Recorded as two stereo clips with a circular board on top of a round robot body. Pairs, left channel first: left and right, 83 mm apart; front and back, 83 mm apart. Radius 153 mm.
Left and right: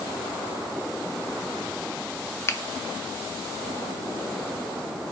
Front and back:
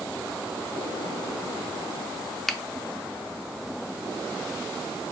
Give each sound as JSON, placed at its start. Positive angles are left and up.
{"t": 2.5, "sound": "a finger snap", "azimuth_deg": 85, "distance_m": 0.6}